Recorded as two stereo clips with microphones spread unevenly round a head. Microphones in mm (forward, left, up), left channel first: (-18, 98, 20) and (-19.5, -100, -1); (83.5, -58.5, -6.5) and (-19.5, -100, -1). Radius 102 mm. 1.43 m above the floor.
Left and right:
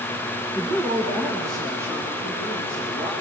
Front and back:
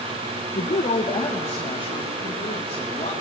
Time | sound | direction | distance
0.6 | a woman speaking | 10° right | 1.5 m